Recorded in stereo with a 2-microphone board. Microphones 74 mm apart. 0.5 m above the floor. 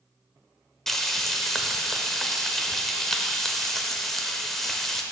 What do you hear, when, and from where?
0.9 s frying: 5° left (ahead or behind), 0.7 m